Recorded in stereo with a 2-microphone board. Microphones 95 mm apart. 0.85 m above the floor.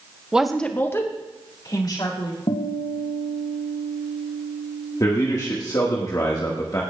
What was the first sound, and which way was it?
A woman speaking, 10° right (ahead or behind).